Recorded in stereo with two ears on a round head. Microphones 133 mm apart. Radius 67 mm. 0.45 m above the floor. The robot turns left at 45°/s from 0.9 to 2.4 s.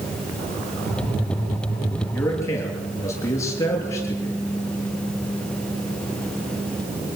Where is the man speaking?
10° left (ahead or behind), 8 m; by 4.3 s 20° left (ahead or behind), 8 m.